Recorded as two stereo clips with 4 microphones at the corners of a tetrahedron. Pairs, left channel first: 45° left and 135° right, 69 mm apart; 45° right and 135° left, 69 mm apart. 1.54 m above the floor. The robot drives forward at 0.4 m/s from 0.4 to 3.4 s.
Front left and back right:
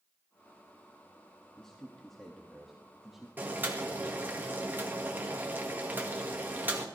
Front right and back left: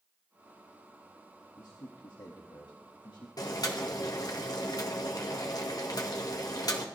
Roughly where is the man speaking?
Ahead right.